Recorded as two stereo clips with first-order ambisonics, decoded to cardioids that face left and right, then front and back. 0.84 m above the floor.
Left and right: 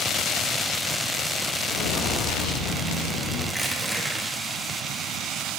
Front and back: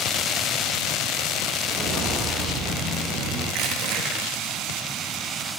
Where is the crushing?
175° right, 1.3 m.